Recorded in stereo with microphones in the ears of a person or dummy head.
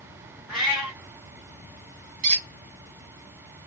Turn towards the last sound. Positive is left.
turn(degrees=-40)  # may be behind; listen again after turning